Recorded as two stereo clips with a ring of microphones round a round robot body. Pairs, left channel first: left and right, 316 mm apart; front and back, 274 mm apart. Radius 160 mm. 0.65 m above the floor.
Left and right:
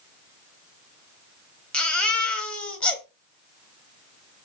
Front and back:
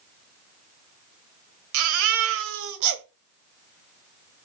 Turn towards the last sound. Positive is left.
turn(degrees=175)